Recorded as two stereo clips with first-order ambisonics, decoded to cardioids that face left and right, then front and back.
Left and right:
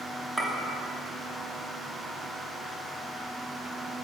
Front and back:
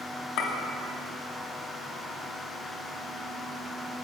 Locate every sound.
0.4 s a clink: straight ahead, 1.1 m